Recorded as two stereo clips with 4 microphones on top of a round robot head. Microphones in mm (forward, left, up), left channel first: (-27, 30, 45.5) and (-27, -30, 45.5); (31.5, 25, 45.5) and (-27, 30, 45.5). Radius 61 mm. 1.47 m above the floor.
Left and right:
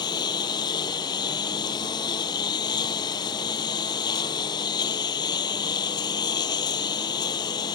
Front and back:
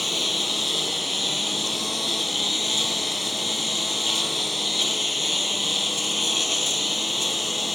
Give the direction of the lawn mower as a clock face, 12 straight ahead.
9 o'clock.